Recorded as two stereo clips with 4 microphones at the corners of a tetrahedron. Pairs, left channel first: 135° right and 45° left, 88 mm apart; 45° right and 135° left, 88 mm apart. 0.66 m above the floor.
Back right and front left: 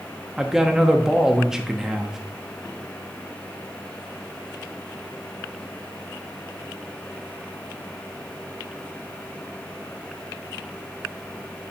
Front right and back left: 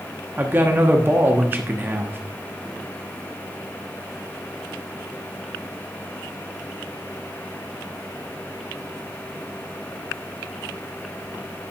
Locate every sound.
0.4 s a man speaking: 120° left, 1.0 m